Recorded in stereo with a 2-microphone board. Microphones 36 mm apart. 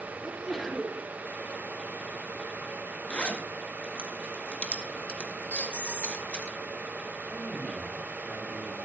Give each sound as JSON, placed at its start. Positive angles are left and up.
{"t": 0.2, "sound": "a sneeze", "side_deg": 5, "distance_m": 4.5}
{"t": 3.1, "sound": "a zipper", "side_deg": 40, "distance_m": 2.0}
{"t": 5.5, "sound": "a squeak", "side_deg": 70, "distance_m": 2.5}
{"t": 7.3, "sound": "a man speaking", "side_deg": -30, "distance_m": 7.0}